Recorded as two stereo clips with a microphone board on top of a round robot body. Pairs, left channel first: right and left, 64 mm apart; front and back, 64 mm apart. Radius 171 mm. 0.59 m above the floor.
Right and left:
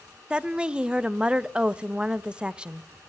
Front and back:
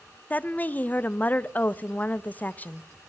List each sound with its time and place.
0.3 s a woman speaking: 30° left, 0.6 m